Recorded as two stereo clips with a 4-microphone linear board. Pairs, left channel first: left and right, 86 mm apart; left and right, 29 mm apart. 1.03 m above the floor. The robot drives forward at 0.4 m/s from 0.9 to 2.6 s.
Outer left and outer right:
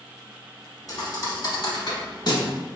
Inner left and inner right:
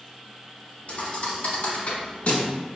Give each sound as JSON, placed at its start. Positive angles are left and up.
{"t": 0.9, "sound": "a thud", "side_deg": 45, "distance_m": 1.2}